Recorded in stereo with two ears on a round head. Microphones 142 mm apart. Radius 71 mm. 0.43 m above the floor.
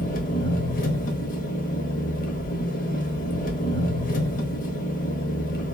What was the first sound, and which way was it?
An engine running, 55° left (ahead or behind).